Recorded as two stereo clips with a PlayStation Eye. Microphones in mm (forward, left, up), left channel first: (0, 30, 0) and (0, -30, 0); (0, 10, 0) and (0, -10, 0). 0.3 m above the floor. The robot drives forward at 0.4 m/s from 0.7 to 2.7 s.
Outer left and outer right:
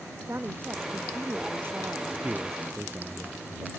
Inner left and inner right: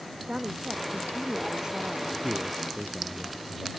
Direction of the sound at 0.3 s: 40° right (ahead or behind).